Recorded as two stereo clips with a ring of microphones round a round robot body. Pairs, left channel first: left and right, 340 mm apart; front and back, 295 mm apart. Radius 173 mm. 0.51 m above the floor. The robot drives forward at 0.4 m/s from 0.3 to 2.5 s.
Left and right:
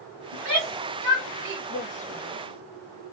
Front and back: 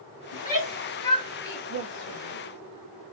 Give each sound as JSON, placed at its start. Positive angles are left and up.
{"t": 0.3, "sound": "a shout", "azimuth_deg": -65, "distance_m": 1.9}
{"t": 1.7, "sound": "a woman speaking", "azimuth_deg": 155, "distance_m": 1.1}